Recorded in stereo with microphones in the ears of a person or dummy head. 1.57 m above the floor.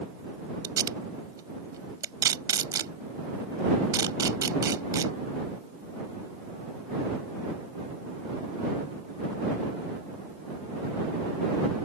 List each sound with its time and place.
0.6 s tape being pulled: 20° right (ahead or behind)